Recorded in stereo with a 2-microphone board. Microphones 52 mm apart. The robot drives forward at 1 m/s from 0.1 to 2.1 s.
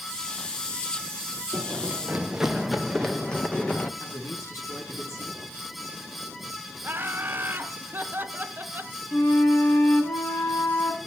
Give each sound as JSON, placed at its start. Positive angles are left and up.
{"t": 1.5, "sound": "running footsteps", "side_deg": -60, "distance_m": 0.8}
{"t": 4.0, "sound": "a man speaking", "side_deg": 75, "distance_m": 5.0}
{"t": 6.8, "sound": "laughter", "side_deg": -40, "distance_m": 1.1}
{"t": 9.1, "sound": "a flute", "side_deg": 55, "distance_m": 2.5}